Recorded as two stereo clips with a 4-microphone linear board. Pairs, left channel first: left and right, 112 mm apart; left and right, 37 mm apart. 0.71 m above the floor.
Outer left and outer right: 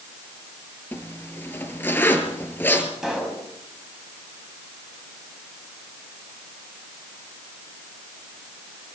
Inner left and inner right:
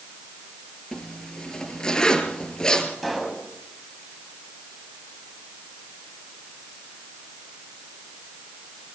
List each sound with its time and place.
0.9 s a zipper: 20° left (ahead or behind), 3.5 m
3.0 s a pop: 5° right (ahead or behind), 6 m